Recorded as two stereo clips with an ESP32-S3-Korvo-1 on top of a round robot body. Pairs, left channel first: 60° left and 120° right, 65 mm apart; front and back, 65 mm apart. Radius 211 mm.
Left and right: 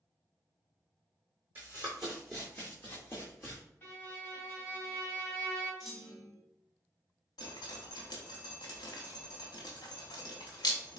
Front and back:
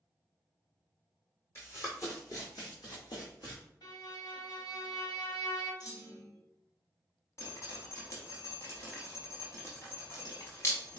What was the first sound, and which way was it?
Running footsteps, 55° right.